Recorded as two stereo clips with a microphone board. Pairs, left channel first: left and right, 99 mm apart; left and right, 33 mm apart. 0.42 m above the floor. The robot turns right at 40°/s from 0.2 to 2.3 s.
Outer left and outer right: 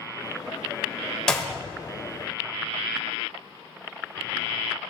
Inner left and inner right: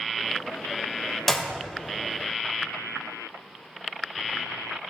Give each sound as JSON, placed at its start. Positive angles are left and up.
{"t": 1.3, "sound": "a clap", "side_deg": 10, "distance_m": 1.2}